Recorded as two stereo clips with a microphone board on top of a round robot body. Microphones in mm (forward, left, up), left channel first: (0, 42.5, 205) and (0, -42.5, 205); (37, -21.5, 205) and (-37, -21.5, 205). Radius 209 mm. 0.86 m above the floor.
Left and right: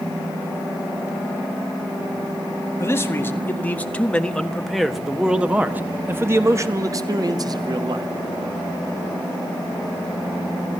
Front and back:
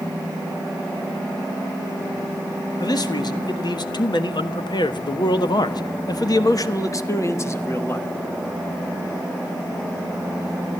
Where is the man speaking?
30° left, 2 m; by 8.1 s 60° right, 2 m.